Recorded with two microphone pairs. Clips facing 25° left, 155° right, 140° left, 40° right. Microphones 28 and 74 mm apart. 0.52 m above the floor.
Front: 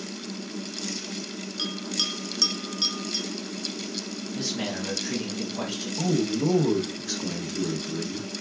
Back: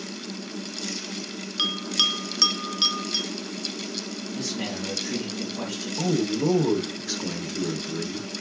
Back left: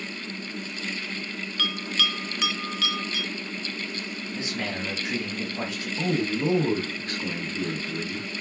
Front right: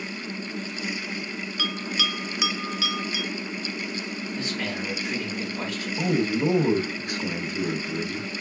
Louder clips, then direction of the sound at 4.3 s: Front 1 dB, even; 80° left.